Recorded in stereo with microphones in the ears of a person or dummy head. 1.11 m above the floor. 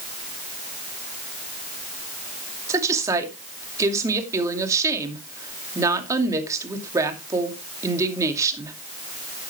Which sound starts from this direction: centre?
A woman speaking, at 2.7 s.